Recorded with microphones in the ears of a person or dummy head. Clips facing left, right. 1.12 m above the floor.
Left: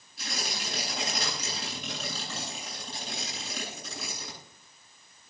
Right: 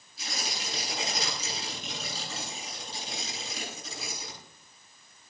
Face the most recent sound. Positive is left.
turn(degrees=55)  # may be behind; listen again after turning